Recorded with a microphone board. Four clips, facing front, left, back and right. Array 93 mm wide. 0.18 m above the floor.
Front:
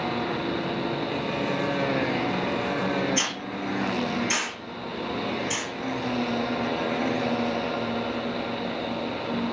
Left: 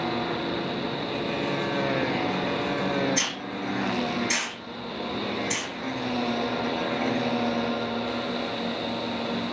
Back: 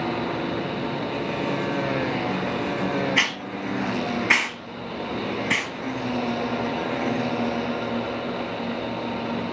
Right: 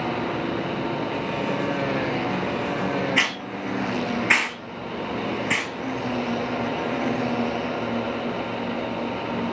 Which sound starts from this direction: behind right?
A hiss, at 3.2 s.